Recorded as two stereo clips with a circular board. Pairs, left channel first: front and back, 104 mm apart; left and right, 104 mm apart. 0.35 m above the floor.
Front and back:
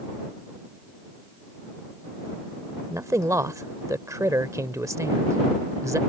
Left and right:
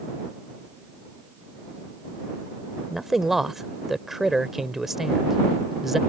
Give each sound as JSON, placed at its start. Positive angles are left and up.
{"t": 2.9, "sound": "a man speaking", "azimuth_deg": -175}